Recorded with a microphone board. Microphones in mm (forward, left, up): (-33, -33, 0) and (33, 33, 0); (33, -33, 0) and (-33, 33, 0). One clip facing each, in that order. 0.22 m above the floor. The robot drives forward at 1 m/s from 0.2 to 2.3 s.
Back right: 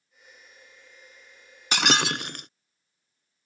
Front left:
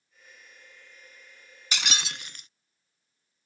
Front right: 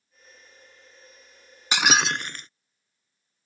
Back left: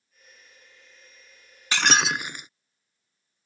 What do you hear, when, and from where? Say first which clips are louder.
1.7 s breaking glass: back right 10 dB, even; 115° right; by 2.5 s 145° right